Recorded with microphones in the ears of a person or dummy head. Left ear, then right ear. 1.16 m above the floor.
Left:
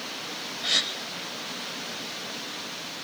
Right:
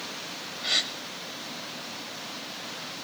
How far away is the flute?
No flute in this recording.